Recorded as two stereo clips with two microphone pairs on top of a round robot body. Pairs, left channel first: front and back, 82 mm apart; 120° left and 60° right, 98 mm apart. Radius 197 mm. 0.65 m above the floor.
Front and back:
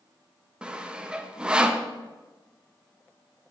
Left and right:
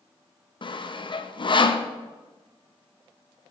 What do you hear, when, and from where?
0.6 s sawing: 110° left, 0.7 m